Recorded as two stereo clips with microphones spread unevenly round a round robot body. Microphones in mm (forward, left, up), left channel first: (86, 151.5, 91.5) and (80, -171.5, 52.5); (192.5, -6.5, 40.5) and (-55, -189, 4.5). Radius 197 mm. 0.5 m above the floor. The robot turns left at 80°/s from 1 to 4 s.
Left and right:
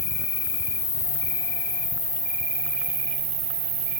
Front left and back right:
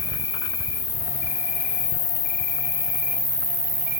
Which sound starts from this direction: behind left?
An insect, at 0.0 s.